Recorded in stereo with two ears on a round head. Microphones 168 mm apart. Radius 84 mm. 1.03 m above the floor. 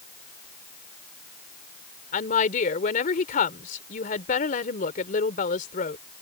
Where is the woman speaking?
50° left (ahead or behind).